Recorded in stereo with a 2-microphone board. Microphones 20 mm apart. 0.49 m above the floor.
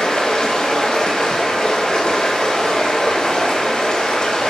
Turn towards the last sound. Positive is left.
turn(degrees=50)  # may be behind; listen again after turning